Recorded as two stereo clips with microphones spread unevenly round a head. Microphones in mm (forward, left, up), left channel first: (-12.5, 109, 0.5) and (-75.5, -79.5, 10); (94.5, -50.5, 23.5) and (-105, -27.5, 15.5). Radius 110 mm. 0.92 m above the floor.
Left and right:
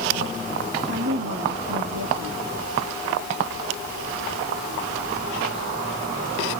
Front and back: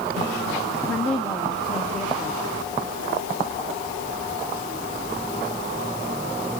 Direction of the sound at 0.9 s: 90° right.